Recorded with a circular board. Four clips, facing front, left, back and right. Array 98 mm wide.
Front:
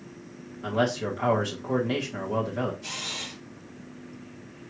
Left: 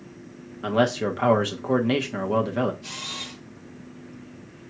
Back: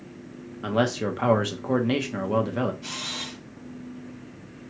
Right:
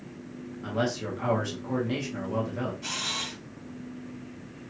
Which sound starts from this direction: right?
A camera shutter, at 2.8 s.